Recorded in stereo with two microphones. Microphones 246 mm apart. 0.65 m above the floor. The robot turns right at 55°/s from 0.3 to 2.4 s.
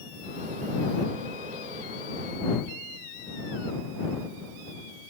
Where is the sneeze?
I don't hear a sneeze.